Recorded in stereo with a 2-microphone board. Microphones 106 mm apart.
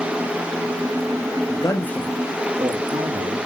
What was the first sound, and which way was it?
A man speaking, 40° left (ahead or behind).